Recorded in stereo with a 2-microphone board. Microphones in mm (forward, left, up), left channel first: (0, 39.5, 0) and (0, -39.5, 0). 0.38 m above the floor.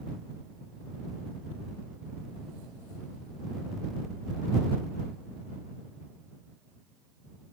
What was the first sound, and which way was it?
Only background noise.